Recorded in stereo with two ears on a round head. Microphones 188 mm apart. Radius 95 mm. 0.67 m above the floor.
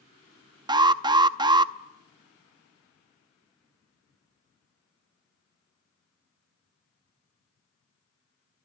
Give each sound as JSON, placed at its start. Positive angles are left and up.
{"t": 0.7, "sound": "an alarm", "side_deg": -20, "distance_m": 0.6}